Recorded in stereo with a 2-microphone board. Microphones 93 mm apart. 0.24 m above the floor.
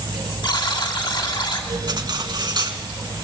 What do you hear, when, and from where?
0.4 s a buzzer: 55° left (ahead or behind), 2 m
1.9 s cutlery clinking: 50° right (ahead or behind), 1.5 m